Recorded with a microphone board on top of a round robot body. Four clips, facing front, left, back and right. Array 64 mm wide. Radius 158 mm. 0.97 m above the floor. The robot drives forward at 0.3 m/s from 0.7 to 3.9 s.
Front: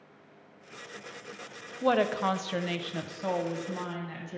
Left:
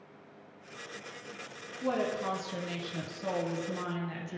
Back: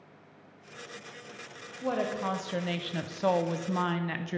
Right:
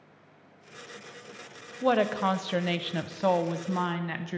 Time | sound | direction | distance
1.8 | a woman speaking | 50° right | 0.6 m